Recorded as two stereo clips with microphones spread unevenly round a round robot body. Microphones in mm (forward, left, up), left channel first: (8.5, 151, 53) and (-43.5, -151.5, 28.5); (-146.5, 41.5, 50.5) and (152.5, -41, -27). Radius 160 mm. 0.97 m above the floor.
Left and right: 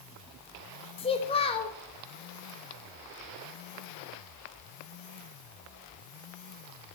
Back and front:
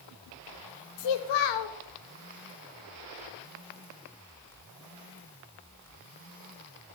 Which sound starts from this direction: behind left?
A child speaking, at 1.0 s.